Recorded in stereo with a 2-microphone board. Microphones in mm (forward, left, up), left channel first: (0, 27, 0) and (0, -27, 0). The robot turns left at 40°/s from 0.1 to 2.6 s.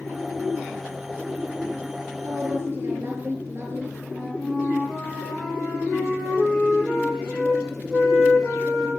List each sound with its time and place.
2.2 s a woman speaking: 60° right (ahead or behind), 6.5 m; by 4.0 s 45° right (ahead or behind), 6.5 m
4.1 s a flute: 15° right (ahead or behind), 7.5 m